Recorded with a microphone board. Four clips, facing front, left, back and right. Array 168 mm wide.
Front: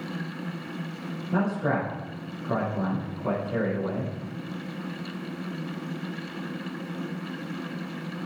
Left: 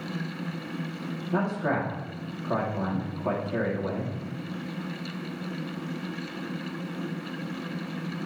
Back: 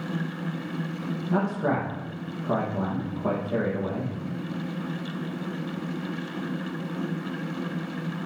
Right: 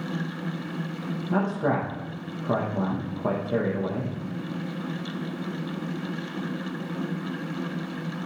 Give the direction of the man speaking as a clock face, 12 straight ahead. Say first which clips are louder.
Right 2 dB, even; 4 o'clock.